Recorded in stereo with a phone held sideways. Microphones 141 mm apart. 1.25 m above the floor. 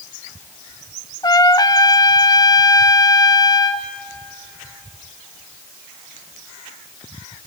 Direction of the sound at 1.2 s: 30° left (ahead or behind).